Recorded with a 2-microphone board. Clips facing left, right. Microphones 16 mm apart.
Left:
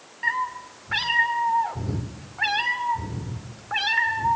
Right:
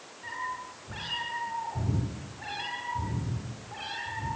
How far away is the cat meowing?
About 2.5 m.